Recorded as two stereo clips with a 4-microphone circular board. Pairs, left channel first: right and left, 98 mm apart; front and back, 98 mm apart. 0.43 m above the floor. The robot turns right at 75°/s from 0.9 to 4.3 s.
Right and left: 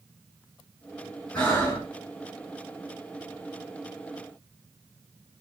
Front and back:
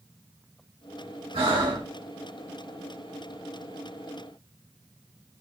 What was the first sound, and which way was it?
Breathing, 170° right.